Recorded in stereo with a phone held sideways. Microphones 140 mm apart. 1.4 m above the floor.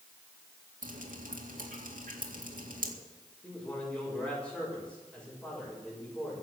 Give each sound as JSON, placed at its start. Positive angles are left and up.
{"t": 0.8, "sound": "dripping", "side_deg": -75, "distance_m": 2.0}
{"t": 3.4, "sound": "a man speaking", "side_deg": 5, "distance_m": 5.5}